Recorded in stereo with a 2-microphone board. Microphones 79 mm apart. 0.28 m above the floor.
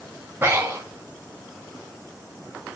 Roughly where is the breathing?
Right.